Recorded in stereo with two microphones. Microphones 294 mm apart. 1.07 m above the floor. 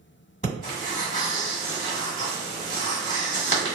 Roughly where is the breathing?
Left.